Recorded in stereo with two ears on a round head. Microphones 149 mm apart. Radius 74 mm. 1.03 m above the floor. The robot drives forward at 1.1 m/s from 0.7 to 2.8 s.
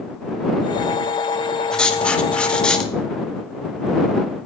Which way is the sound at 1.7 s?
5° left (ahead or behind).